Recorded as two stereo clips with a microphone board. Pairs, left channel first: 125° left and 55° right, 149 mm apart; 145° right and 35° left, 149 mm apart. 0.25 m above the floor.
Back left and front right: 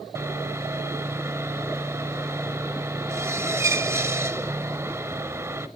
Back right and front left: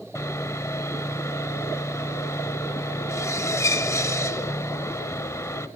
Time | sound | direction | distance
0.1 | sawing | 105° right | 0.8 m